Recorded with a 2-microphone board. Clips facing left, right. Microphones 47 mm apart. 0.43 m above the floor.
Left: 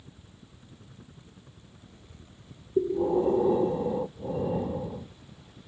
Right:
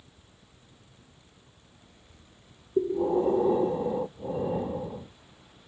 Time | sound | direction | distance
0.0 | a helicopter | 45° left (ahead or behind) | ?
2.8 | breathing | 5° right (ahead or behind) | ?